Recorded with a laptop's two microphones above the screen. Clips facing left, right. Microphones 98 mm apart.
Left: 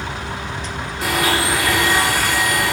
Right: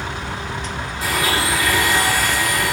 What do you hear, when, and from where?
1.0 s a blender: 65° left (ahead or behind), 1.6 m